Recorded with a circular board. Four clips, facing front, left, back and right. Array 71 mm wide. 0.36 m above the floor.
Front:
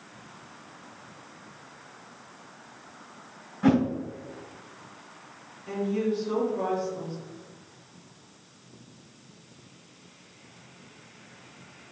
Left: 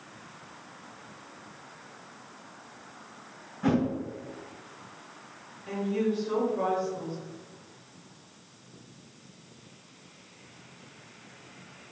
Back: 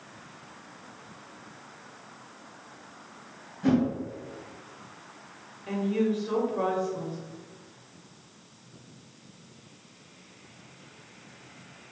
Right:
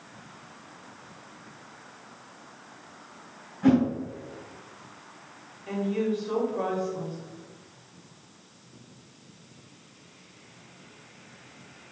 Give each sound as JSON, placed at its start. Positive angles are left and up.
{"t": 3.6, "sound": "a whoosh", "azimuth_deg": 0, "distance_m": 1.2}
{"t": 5.7, "sound": "a woman speaking", "azimuth_deg": -160, "distance_m": 1.2}